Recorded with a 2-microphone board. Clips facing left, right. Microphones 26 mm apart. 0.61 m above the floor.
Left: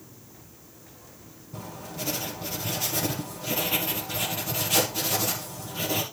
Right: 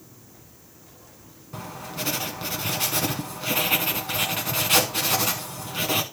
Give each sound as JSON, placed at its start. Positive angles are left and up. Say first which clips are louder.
{"t": 1.5, "sound": "writing", "louder": "right 3 dB", "side_deg": -75, "distance_m": 1.6}